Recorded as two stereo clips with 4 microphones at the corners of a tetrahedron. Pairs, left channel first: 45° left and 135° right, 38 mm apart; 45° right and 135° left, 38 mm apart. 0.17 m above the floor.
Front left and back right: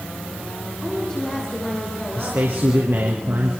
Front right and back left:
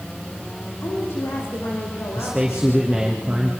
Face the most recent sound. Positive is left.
turn(degrees=-145)